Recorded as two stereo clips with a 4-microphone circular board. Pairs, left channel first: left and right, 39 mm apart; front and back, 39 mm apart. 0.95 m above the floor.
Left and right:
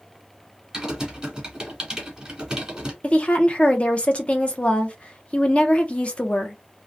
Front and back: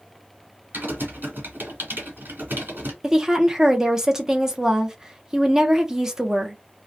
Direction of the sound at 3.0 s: 115° left.